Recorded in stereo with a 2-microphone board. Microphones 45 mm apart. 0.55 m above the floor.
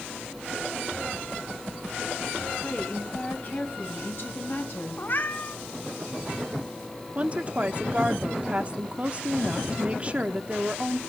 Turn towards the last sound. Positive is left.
turn(degrees=-30)  # may be behind; listen again after turning